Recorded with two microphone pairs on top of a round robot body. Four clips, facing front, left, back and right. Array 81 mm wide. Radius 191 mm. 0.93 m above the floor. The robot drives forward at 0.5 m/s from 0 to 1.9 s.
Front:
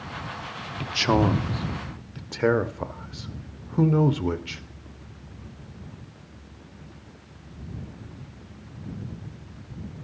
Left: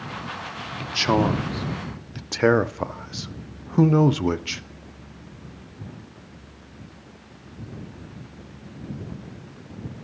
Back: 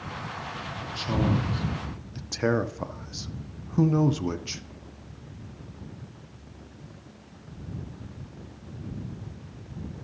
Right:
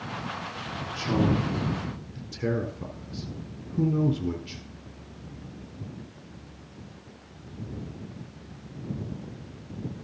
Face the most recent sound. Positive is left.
turn(degrees=90)